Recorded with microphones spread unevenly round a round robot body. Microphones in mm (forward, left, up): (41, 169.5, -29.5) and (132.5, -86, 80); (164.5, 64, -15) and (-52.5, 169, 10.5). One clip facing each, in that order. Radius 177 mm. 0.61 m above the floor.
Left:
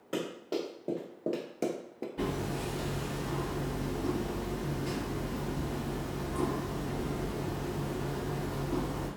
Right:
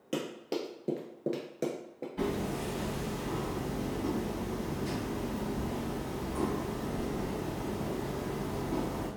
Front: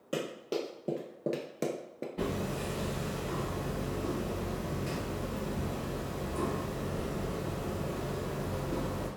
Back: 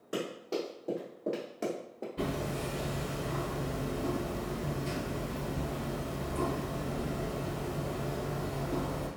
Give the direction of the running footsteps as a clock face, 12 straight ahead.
3 o'clock.